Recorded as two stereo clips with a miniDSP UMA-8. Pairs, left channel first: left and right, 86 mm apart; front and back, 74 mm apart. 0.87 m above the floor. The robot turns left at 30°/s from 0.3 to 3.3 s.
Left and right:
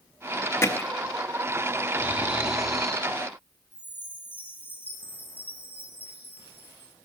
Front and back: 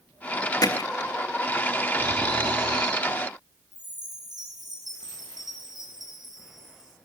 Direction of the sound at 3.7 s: 155° left.